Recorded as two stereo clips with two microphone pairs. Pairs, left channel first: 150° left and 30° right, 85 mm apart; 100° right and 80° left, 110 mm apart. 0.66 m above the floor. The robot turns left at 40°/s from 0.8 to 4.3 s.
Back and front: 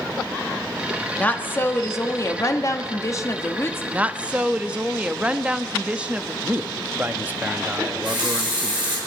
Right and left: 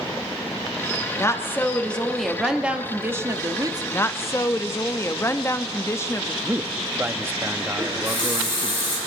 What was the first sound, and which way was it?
A woman speaking, 150° right.